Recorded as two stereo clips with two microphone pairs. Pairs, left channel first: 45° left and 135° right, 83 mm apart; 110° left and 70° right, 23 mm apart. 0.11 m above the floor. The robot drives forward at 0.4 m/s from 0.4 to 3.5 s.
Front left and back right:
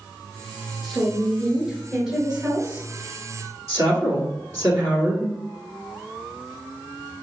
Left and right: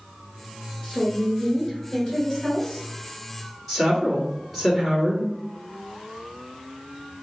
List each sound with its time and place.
0.8 s a woman speaking: 115° left, 1.3 m; by 2.9 s 160° left, 1.6 m
3.7 s a woman speaking: 165° right, 1.8 m